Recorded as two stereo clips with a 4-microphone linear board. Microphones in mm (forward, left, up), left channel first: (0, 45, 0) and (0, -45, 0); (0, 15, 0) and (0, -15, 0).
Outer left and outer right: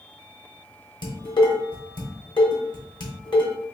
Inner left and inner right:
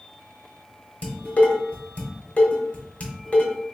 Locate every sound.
1.0 s dishes clattering: 55° left (ahead or behind), 1.1 m